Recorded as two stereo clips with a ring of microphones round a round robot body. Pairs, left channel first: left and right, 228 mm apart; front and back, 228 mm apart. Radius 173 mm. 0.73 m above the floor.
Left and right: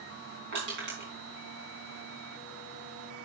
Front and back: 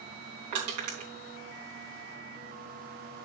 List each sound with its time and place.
0.5 s crushing: 145° right, 3.5 m